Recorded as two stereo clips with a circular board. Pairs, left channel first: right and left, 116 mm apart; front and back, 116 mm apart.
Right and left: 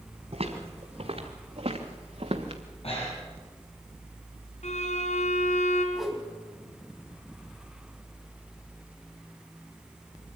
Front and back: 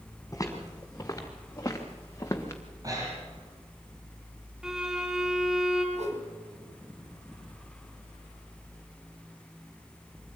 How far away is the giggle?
I don't hear a giggle.